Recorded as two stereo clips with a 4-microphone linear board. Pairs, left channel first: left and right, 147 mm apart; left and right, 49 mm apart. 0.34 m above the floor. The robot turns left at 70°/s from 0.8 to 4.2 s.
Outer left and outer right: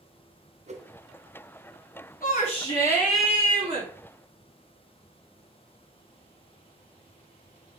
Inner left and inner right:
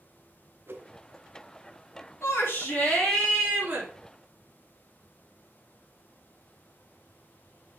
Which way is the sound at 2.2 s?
65° left.